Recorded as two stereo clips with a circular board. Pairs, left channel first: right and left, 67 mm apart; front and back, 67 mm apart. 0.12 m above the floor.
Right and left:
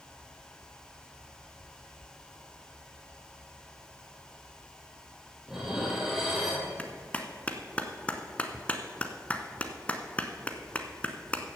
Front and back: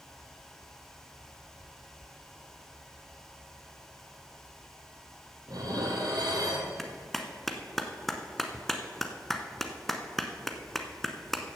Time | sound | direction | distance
5.5 | dishes clattering | 175° left | 2.5 m
6.8 | a clap | 80° right | 1.0 m